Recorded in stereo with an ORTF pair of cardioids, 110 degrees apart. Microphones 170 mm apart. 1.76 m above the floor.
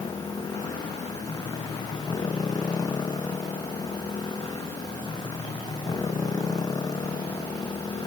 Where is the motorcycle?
25° left.